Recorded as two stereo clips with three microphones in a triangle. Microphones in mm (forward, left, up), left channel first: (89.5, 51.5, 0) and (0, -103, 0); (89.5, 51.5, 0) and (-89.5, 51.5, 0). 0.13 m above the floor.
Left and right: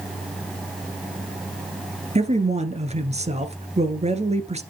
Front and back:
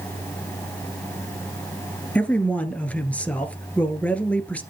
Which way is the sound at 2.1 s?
80° right.